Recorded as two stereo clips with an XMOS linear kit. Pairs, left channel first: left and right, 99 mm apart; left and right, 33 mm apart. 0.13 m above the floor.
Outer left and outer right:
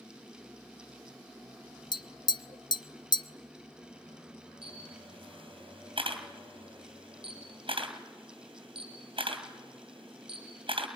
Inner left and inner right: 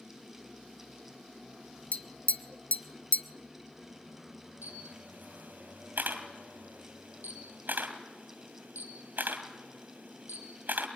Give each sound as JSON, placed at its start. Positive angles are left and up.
{"t": 1.9, "sound": "tapping", "side_deg": 50, "distance_m": 0.5}
{"t": 4.6, "sound": "a camera shutter", "side_deg": -65, "distance_m": 2.5}